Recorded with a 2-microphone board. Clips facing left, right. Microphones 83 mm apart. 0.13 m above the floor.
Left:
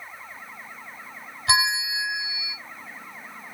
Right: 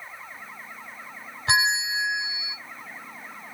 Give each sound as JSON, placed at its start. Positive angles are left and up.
{"t": 1.5, "sound": "a bell", "side_deg": -35, "distance_m": 1.2}